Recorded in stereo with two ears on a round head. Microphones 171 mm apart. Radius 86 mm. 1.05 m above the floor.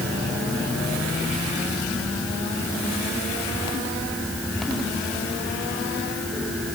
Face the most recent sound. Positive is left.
No sound to turn to.